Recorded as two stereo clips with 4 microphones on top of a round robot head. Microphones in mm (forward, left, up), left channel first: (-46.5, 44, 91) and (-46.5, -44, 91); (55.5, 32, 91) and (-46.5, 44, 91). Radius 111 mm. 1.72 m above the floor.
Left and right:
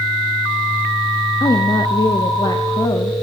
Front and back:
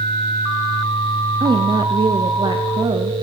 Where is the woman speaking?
130° left, 0.6 m.